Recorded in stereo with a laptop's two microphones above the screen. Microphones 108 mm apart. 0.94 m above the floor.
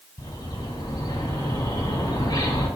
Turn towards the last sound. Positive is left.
turn(degrees=40)  # may be behind; listen again after turning